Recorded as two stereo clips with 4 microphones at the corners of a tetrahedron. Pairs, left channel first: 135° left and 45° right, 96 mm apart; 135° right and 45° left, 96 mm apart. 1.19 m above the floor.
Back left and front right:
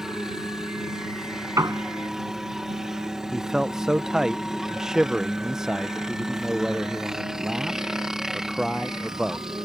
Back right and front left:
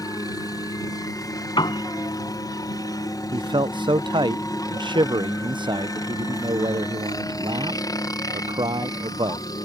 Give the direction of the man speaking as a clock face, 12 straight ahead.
11 o'clock.